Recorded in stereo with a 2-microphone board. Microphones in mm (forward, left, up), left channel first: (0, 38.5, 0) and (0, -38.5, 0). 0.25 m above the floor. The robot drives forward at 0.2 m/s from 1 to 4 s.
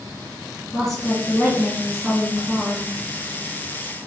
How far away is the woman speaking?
About 1.6 m.